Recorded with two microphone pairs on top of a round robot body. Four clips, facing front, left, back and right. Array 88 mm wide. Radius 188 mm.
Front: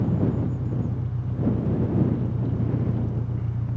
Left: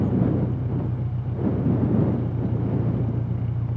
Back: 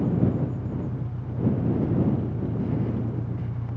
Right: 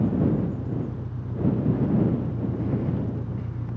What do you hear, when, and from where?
0.0 s an engine running: 105° left